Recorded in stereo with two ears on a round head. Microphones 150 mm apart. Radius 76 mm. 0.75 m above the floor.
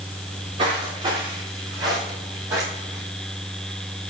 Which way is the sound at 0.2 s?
35° right (ahead or behind).